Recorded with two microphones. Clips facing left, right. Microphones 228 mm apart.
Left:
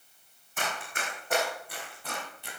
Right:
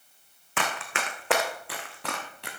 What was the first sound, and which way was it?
Running footsteps, 80° right.